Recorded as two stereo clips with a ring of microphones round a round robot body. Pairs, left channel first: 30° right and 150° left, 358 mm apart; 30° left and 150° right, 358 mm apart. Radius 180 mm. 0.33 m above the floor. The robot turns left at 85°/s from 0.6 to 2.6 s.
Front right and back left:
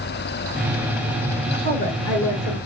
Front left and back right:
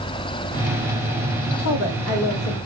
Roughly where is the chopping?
I don't hear chopping.